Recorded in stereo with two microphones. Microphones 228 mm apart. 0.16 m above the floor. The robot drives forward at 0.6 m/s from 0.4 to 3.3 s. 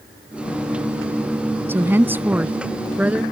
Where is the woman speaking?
10° right (ahead or behind); by 3.2 s 5° right (ahead or behind).